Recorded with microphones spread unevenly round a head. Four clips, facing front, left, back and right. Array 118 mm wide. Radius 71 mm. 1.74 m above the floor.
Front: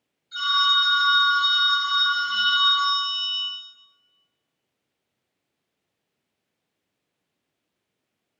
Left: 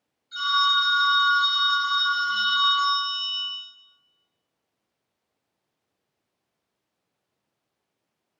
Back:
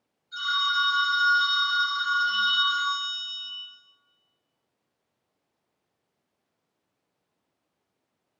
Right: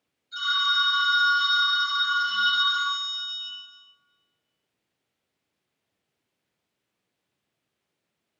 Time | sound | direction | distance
0.3 | a phone ringing | 50° left | 1.6 m